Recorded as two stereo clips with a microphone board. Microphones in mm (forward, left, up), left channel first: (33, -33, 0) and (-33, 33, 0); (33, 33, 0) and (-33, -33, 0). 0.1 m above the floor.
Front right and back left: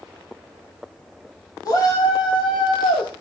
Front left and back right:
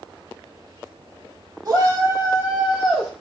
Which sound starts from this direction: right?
A shout, at 1.6 s.